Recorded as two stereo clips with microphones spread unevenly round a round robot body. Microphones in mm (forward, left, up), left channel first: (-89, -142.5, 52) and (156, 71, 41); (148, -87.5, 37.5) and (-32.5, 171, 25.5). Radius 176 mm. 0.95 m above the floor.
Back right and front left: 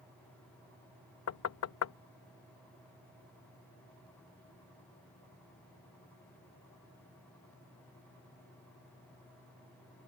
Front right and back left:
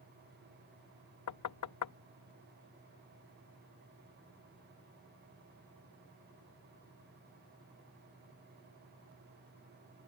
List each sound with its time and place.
1.3 s knocking: 95° right